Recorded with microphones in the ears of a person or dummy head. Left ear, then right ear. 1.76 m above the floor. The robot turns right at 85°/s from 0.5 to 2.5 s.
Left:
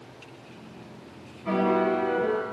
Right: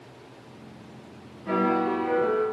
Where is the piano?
100° left, 1.7 m; by 2.4 s 175° right, 1.7 m.